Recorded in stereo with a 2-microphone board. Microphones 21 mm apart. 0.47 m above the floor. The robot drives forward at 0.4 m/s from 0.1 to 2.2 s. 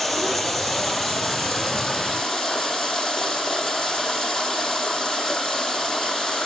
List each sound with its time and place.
0.0 s running water: centre (ahead or behind), 3 m